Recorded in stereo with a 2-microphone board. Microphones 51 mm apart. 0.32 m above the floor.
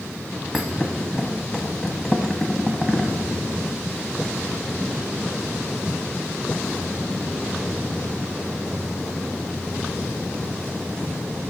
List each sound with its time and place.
0.5 s a thud: centre (ahead or behind), 1.0 m